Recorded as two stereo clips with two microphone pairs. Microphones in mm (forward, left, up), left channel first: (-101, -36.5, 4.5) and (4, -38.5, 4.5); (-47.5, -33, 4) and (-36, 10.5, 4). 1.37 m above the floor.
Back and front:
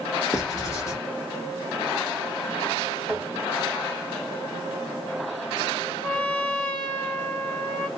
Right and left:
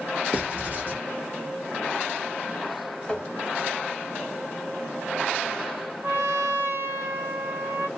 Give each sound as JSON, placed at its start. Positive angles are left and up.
{"t": 0.3, "sound": "writing", "azimuth_deg": 130, "distance_m": 1.2}
{"t": 3.1, "sound": "tapping", "azimuth_deg": -95, "distance_m": 1.3}
{"t": 6.0, "sound": "a trumpet", "azimuth_deg": 105, "distance_m": 1.3}